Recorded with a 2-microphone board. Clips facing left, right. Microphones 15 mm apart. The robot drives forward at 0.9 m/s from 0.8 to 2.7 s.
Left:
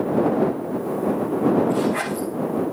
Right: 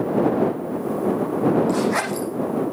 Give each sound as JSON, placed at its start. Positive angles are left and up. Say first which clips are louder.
{"t": 1.7, "sound": "a zipper", "louder": "right 1 dB", "side_deg": -80, "distance_m": 7.0}